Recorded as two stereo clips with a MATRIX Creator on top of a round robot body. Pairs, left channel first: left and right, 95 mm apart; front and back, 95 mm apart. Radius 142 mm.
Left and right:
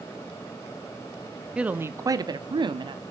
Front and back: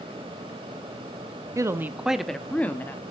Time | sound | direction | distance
1.6 | a woman speaking | 165° right | 0.8 m